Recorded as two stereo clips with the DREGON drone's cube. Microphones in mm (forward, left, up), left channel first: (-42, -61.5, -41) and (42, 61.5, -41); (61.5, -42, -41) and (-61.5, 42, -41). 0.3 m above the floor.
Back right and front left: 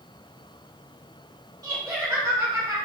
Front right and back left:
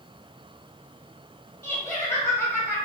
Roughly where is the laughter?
Ahead left.